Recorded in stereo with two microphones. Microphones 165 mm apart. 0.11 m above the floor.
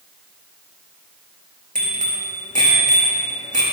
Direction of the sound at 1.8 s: 50° right (ahead or behind).